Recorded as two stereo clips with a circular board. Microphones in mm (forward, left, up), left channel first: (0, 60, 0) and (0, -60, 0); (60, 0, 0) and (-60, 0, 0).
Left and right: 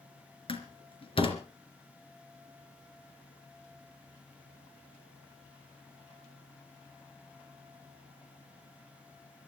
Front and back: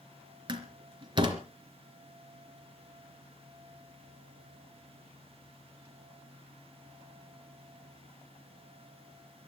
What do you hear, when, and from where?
0.5 s a door slam: 130° left, 3 m